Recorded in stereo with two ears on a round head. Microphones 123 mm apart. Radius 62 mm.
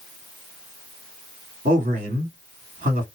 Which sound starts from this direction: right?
A man speaking, at 1.6 s.